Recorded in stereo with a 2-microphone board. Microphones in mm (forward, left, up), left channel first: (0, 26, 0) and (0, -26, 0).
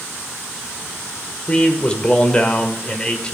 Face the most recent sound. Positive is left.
turn(degrees=20)  # may be behind; listen again after turning